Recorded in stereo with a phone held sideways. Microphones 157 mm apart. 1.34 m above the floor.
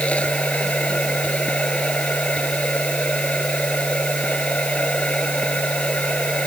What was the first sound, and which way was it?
A machine running, 5° left (ahead or behind).